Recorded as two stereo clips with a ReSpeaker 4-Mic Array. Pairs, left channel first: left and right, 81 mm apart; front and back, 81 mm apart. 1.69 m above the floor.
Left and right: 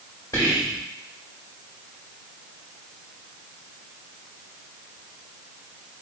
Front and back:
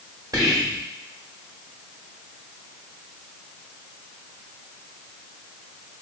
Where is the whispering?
140° left, 1.7 m.